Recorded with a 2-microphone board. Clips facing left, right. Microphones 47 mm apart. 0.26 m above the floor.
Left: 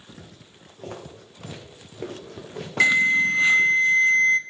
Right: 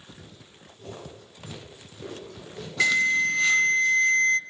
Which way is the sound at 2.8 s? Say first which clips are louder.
Left 3 dB; 25° left (ahead or behind).